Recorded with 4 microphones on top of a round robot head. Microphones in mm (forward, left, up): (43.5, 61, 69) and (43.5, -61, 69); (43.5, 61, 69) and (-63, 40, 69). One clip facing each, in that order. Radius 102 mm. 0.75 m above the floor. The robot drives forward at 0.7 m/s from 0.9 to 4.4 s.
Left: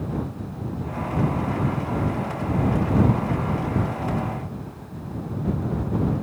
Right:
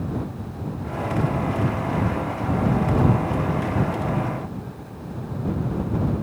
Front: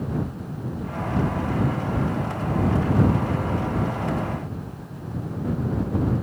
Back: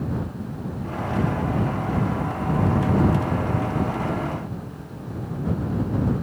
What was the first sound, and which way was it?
Only background noise.